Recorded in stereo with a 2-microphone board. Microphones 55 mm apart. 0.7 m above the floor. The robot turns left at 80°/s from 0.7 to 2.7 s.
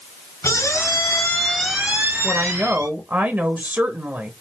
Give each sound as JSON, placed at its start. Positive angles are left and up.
{"t": 0.4, "sound": "a squeak", "azimuth_deg": 70, "distance_m": 2.5}
{"t": 2.2, "sound": "a woman speaking", "azimuth_deg": -30, "distance_m": 0.9}